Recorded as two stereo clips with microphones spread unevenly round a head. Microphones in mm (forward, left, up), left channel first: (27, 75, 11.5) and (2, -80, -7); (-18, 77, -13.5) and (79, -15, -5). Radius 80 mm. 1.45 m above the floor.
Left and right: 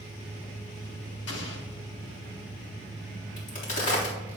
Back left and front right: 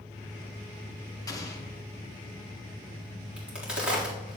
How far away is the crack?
About 3.5 m.